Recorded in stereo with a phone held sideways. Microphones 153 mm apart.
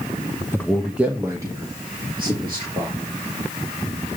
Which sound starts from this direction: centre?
A man speaking, at 0.5 s.